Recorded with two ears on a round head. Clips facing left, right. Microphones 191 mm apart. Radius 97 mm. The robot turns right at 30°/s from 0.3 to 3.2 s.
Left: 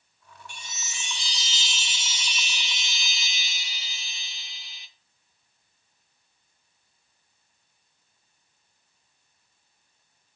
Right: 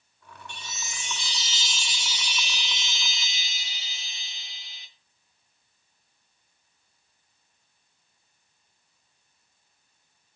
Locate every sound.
0.5 s a chime: 10° left, 1.4 m; by 4.9 s 90° left, 1.4 m